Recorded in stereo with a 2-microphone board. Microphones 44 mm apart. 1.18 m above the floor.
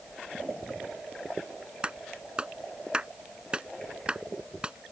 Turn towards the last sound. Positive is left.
turn(degrees=-20)  # may be behind; listen again after turning